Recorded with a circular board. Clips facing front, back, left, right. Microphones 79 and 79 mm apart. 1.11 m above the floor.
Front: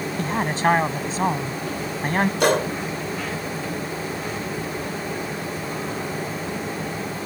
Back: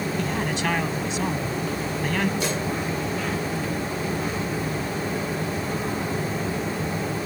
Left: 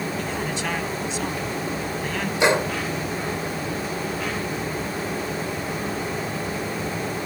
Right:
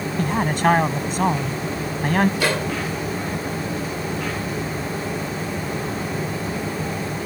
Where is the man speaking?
50° right.